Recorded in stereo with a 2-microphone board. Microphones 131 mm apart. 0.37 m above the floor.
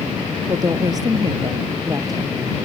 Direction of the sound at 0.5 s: 30° right (ahead or behind).